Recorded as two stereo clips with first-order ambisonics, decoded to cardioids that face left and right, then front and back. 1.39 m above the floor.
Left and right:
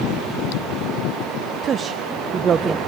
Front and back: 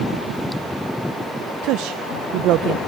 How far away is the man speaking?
About 0.6 m.